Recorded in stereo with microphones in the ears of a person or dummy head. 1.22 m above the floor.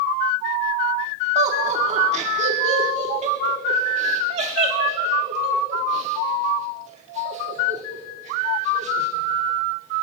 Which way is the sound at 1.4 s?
35° right (ahead or behind).